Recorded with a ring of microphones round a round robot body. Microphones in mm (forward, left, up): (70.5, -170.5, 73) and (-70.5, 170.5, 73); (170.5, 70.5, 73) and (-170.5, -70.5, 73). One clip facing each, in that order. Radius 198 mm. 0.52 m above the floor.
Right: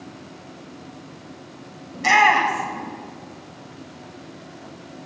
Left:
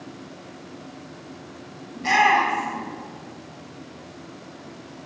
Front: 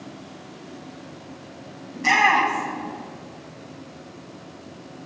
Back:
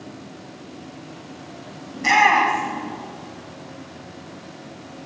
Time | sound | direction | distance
1.9 | a shout | 65° right | 3.5 m